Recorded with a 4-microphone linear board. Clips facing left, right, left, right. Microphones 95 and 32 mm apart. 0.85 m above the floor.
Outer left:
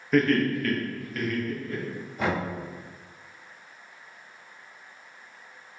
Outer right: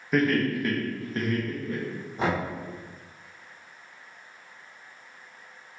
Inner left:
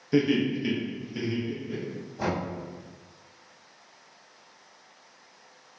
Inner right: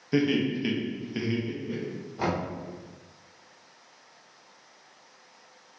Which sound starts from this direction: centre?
Laughter, at 0.1 s.